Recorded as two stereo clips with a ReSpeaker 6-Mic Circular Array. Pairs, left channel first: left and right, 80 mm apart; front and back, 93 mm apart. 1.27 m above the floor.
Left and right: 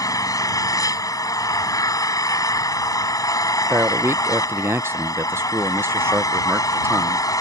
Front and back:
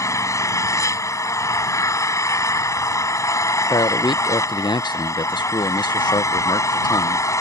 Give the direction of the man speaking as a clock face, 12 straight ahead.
1 o'clock.